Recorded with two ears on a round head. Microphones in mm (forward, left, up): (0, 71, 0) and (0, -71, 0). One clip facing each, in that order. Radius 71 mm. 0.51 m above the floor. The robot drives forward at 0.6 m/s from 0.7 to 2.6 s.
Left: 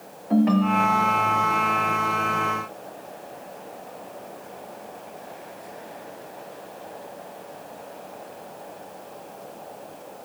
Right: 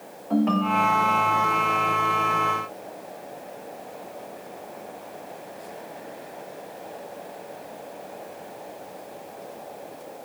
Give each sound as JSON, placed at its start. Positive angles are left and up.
{"t": 0.3, "sound": "a ringtone", "side_deg": 10, "distance_m": 1.1}